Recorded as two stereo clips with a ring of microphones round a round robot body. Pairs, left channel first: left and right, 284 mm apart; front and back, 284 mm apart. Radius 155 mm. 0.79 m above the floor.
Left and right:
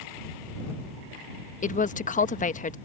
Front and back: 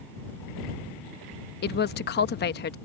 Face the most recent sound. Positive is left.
turn(degrees=40)